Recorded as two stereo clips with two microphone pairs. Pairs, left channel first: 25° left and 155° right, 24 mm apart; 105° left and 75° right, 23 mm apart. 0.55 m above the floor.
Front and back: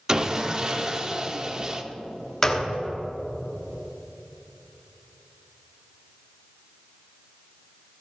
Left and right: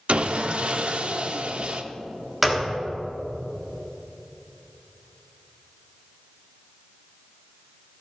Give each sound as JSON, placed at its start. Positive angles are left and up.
{"t": 0.1, "sound": "sawing", "azimuth_deg": -95, "distance_m": 0.6}
{"t": 2.4, "sound": "a gunshot", "azimuth_deg": -10, "distance_m": 1.1}